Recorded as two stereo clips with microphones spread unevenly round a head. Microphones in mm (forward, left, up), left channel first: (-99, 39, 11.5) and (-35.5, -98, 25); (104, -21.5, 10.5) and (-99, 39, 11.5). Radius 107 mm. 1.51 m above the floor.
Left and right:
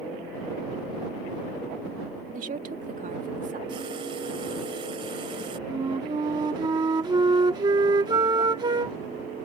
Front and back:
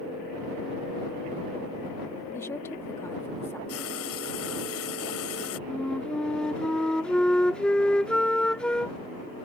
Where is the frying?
5° left.